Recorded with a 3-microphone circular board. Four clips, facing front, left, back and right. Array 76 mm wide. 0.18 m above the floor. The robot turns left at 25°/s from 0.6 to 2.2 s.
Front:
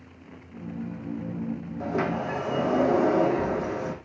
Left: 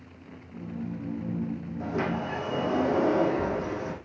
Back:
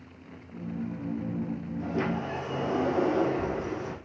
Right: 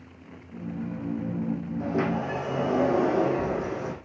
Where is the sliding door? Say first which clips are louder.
Right 2 dB, front 3 dB; 5° left, 7 m; by 4.0 s 5° right, 7 m.